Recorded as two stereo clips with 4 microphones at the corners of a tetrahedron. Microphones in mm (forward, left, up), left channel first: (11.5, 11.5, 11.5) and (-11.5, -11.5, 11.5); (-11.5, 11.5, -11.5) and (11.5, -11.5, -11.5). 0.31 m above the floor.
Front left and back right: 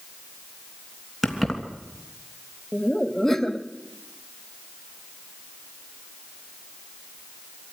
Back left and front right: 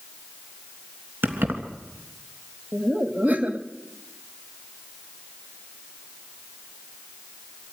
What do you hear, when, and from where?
1.2 s keys jangling: 50° right, 3 m
2.7 s laughter: 35° right, 1.7 m